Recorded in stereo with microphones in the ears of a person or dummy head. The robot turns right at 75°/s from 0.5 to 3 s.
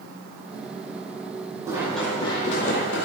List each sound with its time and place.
1.7 s running footsteps: 15° right (ahead or behind), 5 m; by 3.1 s 70° left (ahead or behind), 4.5 m